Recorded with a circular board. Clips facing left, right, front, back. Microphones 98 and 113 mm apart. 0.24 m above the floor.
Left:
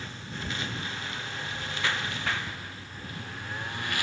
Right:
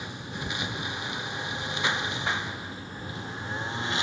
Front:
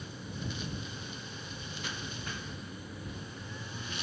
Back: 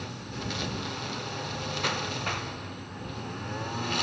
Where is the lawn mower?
165° right; by 4.0 s 160° right.